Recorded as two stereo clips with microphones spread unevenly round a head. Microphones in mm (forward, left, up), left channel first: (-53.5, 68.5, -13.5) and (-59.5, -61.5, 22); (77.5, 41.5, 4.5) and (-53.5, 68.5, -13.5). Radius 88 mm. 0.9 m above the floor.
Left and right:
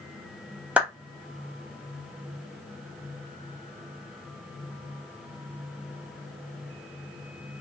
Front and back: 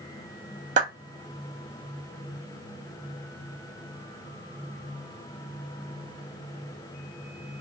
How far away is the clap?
About 1.1 m.